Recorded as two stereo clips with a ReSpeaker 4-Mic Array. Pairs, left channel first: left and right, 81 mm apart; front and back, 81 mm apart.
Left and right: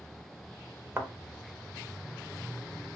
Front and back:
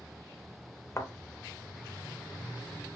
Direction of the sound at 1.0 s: 40° right.